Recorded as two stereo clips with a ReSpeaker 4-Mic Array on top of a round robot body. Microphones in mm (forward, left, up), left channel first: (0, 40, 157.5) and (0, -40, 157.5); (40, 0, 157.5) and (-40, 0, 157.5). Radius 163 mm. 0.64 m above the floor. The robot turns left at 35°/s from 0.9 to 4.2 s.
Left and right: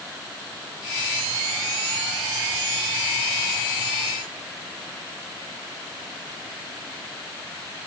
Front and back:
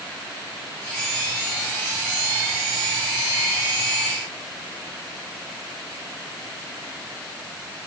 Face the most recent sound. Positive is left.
No sound to turn to.